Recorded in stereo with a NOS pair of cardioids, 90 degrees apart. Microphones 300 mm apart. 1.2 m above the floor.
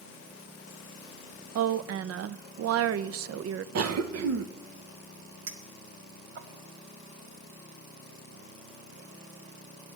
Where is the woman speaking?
55° right, 0.6 m.